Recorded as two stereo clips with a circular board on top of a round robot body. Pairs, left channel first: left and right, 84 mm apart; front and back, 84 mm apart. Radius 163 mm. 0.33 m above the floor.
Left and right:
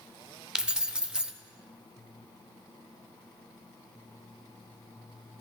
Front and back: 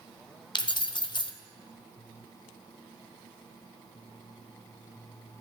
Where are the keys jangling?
10° right, 1.0 m.